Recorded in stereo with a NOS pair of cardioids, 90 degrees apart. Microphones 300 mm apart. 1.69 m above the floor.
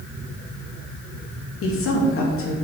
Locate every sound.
1.6 s a woman speaking: 45° left, 2.5 m